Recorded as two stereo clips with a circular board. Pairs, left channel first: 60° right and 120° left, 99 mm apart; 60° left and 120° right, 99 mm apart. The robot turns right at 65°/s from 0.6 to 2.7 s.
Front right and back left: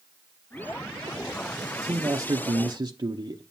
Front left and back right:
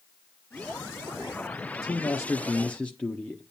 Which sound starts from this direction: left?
A man speaking, at 1.7 s.